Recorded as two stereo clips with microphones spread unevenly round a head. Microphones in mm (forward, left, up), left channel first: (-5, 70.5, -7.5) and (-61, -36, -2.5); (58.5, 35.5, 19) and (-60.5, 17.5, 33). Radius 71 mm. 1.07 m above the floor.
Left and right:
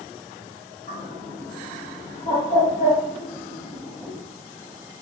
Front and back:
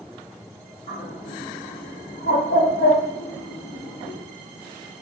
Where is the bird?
15° left, 1.5 m.